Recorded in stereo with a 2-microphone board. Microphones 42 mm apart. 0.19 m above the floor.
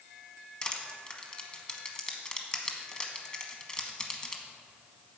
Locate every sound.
0.6 s crushing: 20° left (ahead or behind), 1.0 m